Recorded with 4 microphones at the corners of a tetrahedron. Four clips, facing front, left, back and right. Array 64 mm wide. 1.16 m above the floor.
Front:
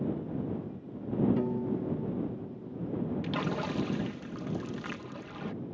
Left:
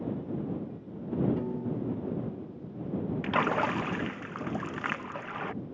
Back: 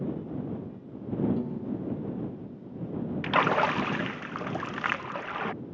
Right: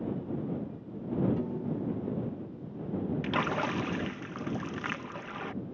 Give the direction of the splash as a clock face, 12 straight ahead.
7 o'clock.